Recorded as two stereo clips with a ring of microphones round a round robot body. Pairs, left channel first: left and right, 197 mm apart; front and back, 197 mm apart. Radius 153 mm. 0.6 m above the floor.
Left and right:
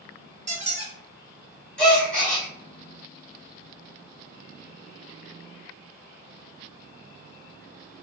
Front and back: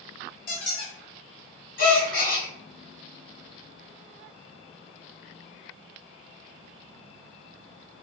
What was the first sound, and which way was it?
A squeak, 35° right.